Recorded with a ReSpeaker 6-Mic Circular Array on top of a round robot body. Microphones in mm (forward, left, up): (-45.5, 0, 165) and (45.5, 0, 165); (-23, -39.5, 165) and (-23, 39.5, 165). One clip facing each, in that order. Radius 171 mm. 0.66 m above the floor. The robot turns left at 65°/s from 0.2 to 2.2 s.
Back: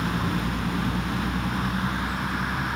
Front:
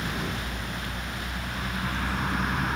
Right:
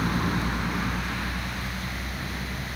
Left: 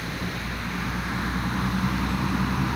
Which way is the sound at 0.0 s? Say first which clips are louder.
Back 5 dB, right 5 dB; 135° right.